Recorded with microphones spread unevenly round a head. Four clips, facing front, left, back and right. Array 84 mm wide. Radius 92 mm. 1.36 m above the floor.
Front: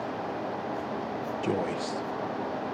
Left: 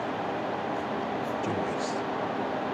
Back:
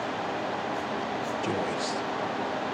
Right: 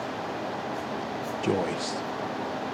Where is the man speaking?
40° right, 0.9 m; by 2.8 s 15° left, 0.5 m.